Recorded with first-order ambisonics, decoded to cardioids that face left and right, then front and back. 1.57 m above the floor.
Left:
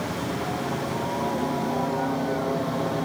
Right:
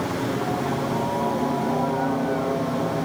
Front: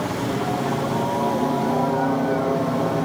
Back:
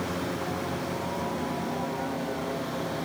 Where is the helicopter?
20° right; by 3.1 s 5° right.